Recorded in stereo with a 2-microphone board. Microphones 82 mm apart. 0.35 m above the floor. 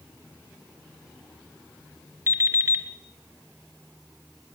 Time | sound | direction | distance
2.3 | an alarm clock | 35° right (ahead or behind) | 2.5 m